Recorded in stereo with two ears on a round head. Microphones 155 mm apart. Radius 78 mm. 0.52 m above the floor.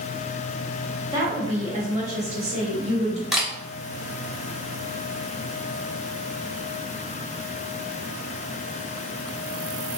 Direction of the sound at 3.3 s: Centre (ahead or behind).